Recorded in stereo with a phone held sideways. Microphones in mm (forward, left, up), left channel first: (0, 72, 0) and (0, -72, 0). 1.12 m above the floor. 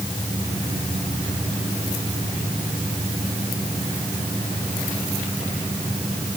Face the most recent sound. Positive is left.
No sound to turn to.